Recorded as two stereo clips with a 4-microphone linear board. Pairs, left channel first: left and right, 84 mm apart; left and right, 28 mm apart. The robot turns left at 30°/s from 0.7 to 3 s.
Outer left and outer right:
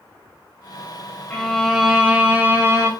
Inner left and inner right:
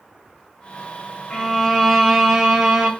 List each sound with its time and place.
1.3 s a violin: 15° left, 1.4 m; by 2.9 s 35° right, 1.4 m